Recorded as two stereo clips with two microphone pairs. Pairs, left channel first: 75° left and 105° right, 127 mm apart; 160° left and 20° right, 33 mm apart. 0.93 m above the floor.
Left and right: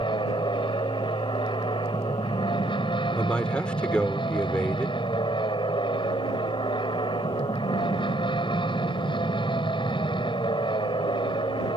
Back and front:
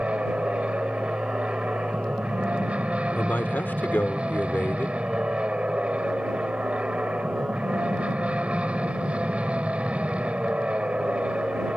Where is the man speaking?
155° left.